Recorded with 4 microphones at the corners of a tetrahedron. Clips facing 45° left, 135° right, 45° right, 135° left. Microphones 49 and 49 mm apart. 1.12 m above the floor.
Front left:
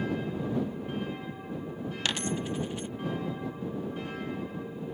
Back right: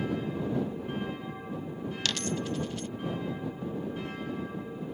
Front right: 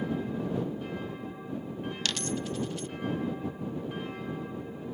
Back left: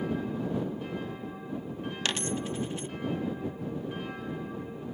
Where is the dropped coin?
100° left.